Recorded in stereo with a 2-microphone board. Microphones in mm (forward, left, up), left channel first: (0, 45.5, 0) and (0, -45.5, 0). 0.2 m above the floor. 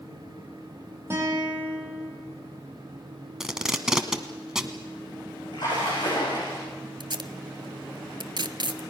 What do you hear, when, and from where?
1.1 s a guitar: 30° right (ahead or behind), 6 m
3.4 s tape being pulled: 5° right (ahead or behind), 1.3 m
5.5 s a splash: 55° left (ahead or behind), 9.5 m
7.0 s tape being pulled: 60° right (ahead or behind), 0.8 m